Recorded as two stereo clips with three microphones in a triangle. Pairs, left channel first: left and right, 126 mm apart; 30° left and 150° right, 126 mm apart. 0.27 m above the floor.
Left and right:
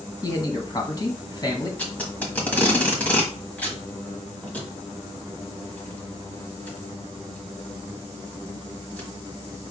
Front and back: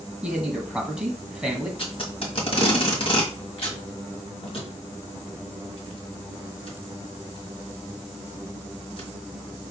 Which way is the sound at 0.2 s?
125° left.